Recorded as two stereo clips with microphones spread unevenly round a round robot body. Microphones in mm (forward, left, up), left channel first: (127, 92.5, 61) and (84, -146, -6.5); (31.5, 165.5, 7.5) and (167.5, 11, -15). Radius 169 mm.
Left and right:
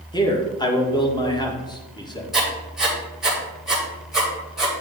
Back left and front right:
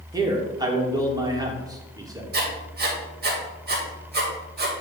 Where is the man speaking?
5° right, 1.4 m.